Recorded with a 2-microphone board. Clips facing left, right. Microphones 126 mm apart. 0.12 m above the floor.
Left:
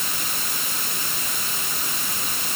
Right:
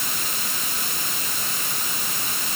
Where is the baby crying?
I don't hear a baby crying.